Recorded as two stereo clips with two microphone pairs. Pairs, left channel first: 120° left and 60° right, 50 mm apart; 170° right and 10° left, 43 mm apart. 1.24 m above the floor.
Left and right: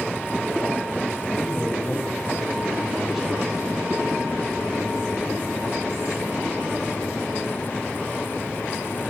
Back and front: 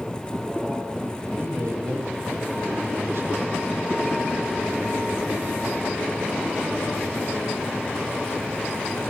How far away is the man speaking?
About 6 m.